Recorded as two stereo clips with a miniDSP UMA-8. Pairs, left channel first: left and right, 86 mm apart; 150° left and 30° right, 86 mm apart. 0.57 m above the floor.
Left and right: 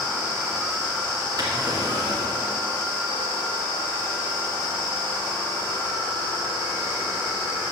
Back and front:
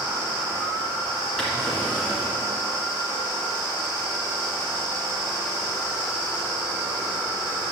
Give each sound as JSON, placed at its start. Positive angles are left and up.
{"t": 1.4, "sound": "a drawer", "azimuth_deg": -130, "distance_m": 2.5}